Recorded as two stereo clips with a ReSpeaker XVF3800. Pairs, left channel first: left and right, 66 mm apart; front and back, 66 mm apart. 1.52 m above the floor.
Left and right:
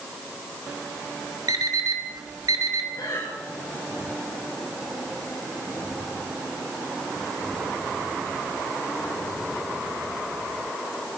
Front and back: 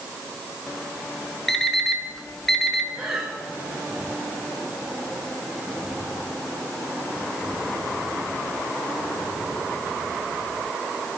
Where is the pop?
No pop in this recording.